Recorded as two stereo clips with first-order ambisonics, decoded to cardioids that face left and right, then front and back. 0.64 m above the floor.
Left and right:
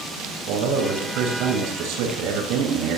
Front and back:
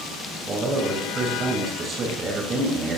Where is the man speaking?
115° right, 8 m.